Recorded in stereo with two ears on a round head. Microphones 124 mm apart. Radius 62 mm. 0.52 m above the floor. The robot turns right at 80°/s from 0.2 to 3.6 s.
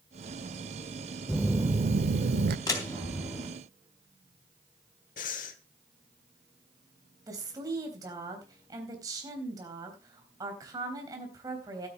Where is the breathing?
65° left (ahead or behind), 1.2 m.